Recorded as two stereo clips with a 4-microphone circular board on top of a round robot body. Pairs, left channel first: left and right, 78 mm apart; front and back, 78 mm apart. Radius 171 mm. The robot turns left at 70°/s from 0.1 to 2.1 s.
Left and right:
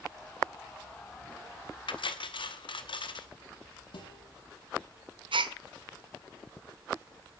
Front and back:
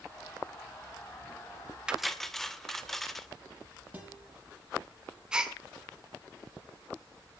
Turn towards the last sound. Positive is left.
turn(degrees=-100)